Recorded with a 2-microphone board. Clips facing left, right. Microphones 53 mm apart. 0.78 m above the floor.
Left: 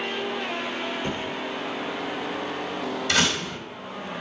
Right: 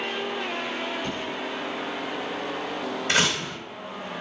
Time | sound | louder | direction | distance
1.0 | a thud | left 1 dB | 20° left (ahead or behind) | 1.2 m
3.1 | a door slam | even | 30° right (ahead or behind) | 4 m